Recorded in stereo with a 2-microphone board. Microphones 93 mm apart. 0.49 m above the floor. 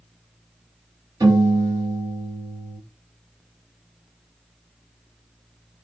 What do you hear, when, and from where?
1.2 s a piano: 40° right (ahead or behind), 2.5 m